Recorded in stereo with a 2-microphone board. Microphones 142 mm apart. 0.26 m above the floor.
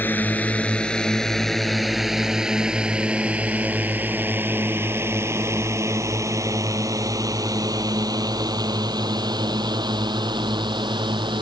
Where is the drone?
15° left (ahead or behind); by 11.4 s 35° right (ahead or behind).